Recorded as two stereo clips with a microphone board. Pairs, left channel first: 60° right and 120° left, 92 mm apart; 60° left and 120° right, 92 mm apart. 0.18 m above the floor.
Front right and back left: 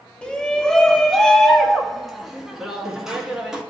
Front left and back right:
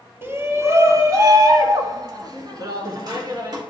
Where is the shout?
120° right, 1.2 m; by 3.6 s 155° right, 2.5 m.